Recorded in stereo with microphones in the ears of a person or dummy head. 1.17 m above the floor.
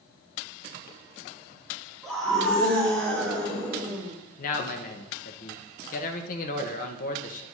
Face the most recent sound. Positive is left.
turn(degrees=45)  # may be behind; listen again after turning